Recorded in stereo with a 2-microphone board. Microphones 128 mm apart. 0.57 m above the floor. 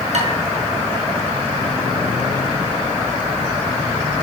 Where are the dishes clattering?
65° right (ahead or behind), 5 m.